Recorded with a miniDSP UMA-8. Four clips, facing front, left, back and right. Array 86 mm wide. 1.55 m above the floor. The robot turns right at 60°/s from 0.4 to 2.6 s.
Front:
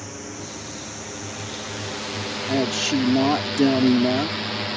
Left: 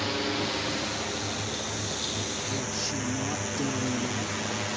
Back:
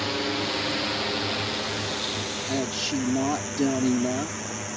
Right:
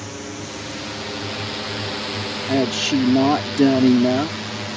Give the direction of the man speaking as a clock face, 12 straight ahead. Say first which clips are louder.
Right 18 dB, front 7 dB; 3 o'clock.